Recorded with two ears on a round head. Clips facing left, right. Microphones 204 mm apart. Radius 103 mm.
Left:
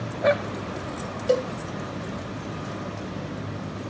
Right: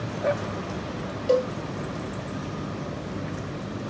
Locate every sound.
1.3 s a cowbell: 20° left (ahead or behind), 3 m